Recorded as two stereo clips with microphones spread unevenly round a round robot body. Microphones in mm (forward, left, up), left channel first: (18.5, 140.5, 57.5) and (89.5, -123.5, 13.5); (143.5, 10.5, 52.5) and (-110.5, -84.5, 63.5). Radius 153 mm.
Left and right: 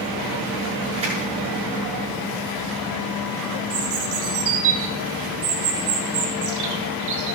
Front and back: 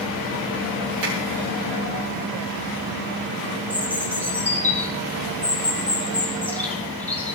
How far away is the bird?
About 3 m.